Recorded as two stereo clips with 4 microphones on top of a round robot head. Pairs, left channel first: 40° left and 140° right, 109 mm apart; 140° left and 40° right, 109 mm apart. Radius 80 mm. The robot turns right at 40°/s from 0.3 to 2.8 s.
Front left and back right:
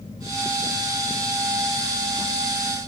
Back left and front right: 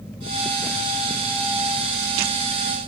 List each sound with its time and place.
Only background noise.